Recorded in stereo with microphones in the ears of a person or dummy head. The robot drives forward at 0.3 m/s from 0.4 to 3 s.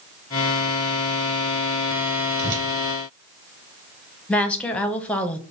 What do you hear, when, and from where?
2.4 s a whoosh: 55° right (ahead or behind), 1.3 m
4.3 s a woman speaking: 5° left (ahead or behind), 0.5 m